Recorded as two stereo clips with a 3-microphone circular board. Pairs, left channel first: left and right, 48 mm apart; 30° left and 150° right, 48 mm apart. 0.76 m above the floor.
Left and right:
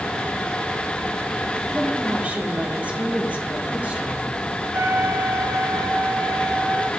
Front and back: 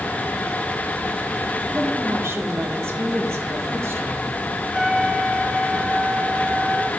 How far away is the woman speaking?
About 1.8 m.